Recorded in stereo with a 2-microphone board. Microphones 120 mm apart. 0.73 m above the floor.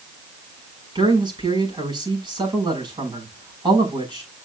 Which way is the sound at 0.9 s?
40° right (ahead or behind).